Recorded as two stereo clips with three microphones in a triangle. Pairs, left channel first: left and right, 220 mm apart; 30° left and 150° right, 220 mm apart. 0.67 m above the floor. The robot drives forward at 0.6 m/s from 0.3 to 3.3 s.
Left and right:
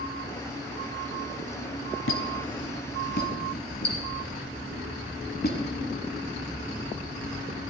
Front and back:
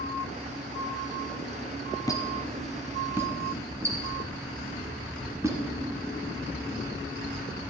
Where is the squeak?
105° left, 1.1 m; by 5.6 s 135° left, 1.4 m.